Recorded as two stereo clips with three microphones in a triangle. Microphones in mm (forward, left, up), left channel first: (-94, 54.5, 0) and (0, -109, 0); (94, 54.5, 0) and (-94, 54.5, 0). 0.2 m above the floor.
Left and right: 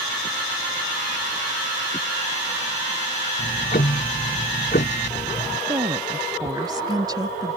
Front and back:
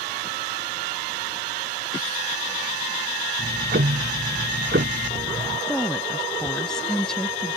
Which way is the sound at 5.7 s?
80° right.